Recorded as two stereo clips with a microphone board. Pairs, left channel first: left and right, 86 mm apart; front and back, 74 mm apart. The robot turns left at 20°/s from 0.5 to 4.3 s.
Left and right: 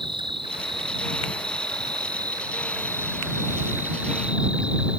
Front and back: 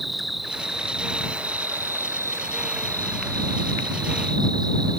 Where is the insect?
90° right; by 5.0 s 165° right.